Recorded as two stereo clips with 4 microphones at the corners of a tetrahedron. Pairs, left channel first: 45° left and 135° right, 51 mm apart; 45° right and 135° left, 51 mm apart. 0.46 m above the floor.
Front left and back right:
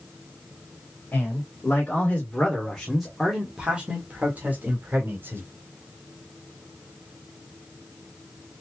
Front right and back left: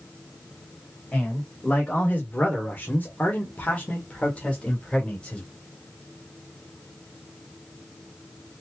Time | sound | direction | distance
1.1 | a man speaking | 10° left | 2 m